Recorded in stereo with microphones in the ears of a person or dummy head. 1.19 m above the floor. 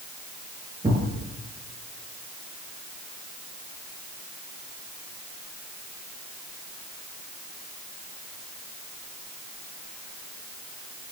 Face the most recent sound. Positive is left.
turn(degrees=-15)  # may be behind; listen again after turning